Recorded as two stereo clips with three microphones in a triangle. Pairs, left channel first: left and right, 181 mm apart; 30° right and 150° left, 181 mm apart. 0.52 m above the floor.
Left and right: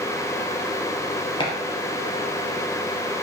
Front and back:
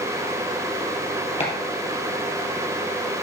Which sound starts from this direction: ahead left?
Chopping, at 1.4 s.